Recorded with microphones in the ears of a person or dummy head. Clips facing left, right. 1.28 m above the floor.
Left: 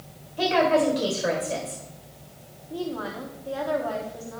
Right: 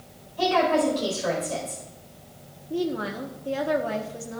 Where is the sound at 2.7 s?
25° right (ahead or behind), 1.0 m.